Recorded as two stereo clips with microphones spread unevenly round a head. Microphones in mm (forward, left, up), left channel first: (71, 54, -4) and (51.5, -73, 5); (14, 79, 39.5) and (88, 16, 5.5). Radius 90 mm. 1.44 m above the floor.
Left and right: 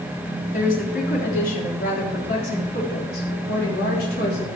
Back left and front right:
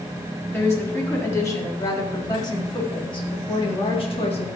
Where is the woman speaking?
70° left, 4.5 m; by 4.6 s 115° left, 3.5 m.